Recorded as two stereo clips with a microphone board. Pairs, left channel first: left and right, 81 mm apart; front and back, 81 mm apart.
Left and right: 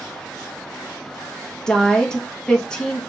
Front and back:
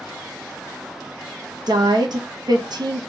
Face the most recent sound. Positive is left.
turn(degrees=170)